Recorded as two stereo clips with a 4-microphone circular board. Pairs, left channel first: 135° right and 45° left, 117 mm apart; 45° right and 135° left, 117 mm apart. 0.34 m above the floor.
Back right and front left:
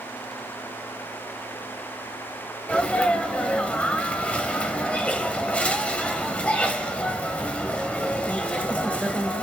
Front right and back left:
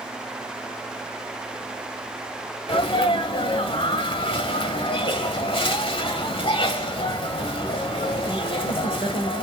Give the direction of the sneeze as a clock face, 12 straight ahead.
2 o'clock.